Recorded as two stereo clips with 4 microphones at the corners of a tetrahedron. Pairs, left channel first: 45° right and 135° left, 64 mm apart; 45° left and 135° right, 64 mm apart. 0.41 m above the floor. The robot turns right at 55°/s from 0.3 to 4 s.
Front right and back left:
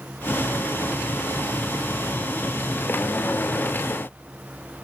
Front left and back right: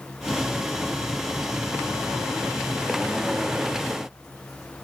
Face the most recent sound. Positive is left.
No sound to turn to.